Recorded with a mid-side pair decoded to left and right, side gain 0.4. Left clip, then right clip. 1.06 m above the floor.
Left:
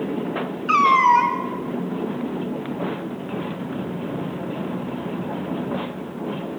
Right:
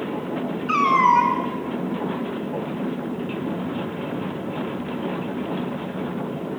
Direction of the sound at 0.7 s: 45° left.